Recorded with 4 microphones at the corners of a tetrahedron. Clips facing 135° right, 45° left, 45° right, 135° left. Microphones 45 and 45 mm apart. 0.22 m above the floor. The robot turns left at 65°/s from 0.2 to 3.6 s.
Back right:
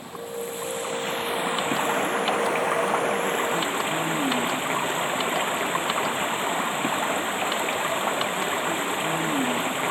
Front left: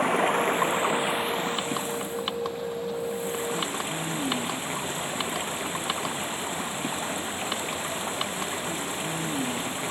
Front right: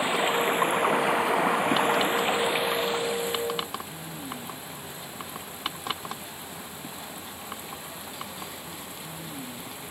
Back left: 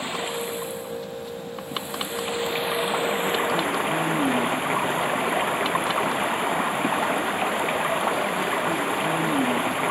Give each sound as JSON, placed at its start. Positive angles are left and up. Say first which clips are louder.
{"t": 0.0, "sound": "running water", "louder": "front left 10 dB, front right 4 dB", "azimuth_deg": 25}